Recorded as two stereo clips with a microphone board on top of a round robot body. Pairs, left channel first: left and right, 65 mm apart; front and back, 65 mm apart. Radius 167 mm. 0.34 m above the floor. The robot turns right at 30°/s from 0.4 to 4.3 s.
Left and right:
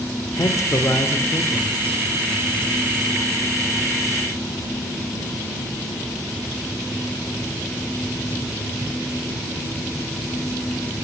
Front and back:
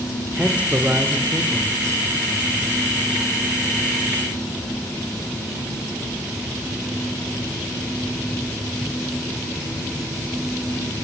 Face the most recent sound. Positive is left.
turn(degrees=-135)